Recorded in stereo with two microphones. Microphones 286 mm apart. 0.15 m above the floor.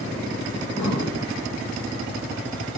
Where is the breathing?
70° left (ahead or behind), 4 m.